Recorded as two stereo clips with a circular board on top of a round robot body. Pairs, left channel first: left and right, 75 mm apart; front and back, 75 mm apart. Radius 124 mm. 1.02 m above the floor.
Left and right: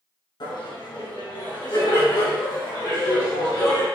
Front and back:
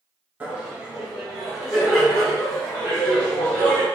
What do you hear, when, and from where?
0.4 s laughter: 105° left, 1.7 m; by 3.9 s 75° left, 3.5 m